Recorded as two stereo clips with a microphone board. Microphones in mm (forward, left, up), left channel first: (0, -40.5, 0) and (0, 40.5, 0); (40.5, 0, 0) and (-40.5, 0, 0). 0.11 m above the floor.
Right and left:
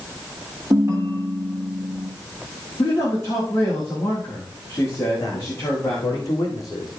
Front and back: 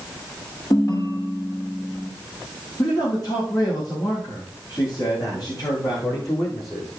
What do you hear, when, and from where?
0.7 s a ringtone: 40° left, 2.5 m
2.8 s a man speaking: 35° right, 6.5 m
5.2 s a man speaking: 45° right, 7 m